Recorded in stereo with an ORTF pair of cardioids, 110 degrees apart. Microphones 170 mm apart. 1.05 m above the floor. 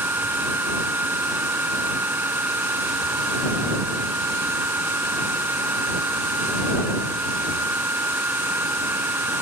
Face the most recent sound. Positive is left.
turn(degrees=-10)